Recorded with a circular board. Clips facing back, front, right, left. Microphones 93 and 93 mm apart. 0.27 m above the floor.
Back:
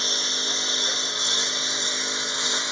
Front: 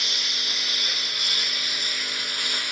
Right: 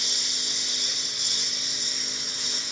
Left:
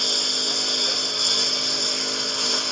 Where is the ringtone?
I don't hear a ringtone.